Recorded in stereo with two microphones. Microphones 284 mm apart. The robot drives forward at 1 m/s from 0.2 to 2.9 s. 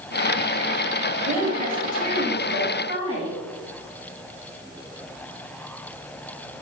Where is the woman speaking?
30° right (ahead or behind), 1.2 m; by 3.4 s 20° right (ahead or behind), 1.9 m.